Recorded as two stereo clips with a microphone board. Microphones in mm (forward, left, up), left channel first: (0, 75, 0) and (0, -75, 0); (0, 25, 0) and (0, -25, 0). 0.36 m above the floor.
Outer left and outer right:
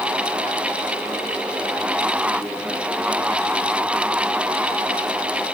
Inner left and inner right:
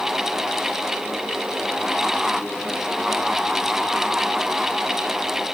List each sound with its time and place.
Only background noise.